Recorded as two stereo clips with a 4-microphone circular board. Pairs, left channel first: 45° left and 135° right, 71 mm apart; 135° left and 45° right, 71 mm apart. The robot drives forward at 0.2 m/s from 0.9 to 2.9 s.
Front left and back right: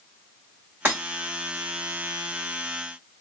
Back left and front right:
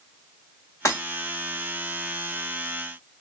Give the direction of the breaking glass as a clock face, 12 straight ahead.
6 o'clock.